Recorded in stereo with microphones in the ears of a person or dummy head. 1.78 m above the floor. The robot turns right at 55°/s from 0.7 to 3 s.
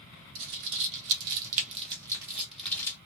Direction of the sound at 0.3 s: 50° right (ahead or behind).